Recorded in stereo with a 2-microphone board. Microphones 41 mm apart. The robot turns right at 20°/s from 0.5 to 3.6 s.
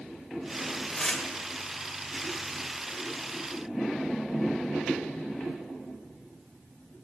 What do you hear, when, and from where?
0.9 s tearing paper: 20° left (ahead or behind), 1.3 m